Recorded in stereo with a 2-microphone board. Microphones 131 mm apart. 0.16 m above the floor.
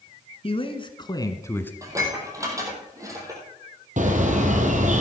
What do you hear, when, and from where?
0.4 s a man speaking: 50° left (ahead or behind), 1.6 m; by 1.7 s 15° left (ahead or behind), 1.2 m
1.8 s dishes clattering: 25° right (ahead or behind), 3 m
4.0 s a bird: 75° right (ahead or behind), 1.9 m